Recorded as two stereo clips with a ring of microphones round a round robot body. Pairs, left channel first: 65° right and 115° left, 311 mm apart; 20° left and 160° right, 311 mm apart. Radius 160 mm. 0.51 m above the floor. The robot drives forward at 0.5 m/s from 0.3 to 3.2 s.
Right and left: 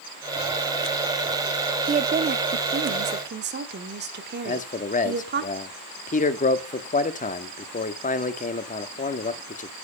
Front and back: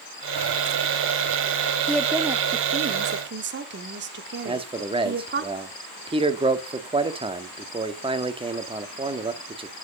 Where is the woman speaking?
105° left, 0.8 m; by 5.5 s 160° left, 1.1 m.